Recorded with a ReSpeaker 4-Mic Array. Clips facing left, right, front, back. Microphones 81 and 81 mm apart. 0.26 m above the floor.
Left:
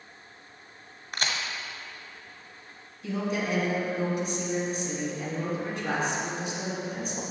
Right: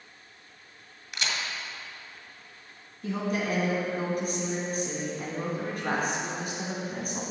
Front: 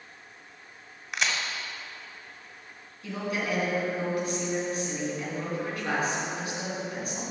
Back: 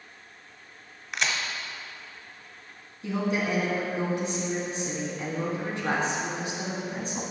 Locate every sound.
1.1 s a crack: 90° left, 1.2 m
3.0 s a woman speaking: 120° right, 3 m